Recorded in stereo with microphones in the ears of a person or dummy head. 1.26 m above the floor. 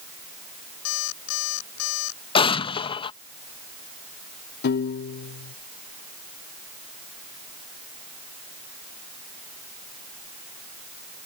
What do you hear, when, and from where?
0.8 s an alarm clock: 80° left
2.4 s an explosion: 25° left (ahead or behind)
4.6 s a piano: 55° left (ahead or behind)